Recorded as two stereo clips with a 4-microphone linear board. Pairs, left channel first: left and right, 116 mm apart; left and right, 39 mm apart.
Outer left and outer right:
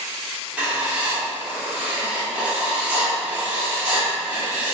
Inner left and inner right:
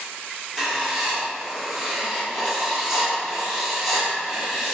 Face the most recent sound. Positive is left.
turn(degrees=-10)  # may be behind; listen again after turning